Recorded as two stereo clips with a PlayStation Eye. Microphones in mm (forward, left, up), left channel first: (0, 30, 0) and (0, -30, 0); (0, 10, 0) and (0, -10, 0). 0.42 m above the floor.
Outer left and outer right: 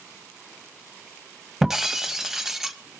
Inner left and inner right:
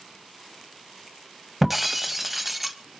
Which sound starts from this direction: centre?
Breaking glass, at 1.6 s.